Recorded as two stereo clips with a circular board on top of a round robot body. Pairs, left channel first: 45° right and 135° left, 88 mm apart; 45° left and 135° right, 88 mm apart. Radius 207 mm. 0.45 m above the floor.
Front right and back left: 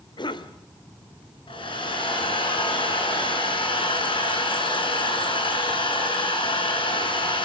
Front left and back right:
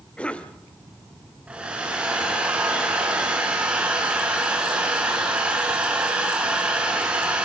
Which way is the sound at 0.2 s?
30° right.